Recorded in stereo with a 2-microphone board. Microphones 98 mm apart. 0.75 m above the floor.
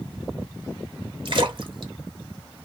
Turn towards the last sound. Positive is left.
turn(degrees=-55)  # may be behind; listen again after turning